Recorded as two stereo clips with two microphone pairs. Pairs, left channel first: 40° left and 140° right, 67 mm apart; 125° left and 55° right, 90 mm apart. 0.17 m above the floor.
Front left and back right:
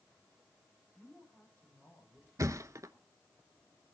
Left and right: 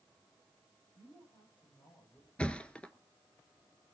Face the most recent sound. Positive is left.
turn(degrees=-165)